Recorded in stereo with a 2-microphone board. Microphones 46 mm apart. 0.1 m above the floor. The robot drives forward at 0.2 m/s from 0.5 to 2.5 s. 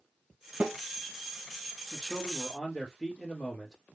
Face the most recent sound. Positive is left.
turn(degrees=10)  # may be behind; listen again after turning